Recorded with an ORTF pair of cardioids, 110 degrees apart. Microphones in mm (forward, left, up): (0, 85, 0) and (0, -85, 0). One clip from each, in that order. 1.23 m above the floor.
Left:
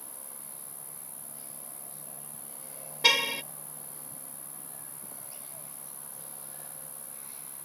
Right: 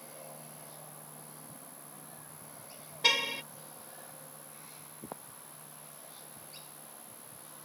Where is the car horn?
25° left.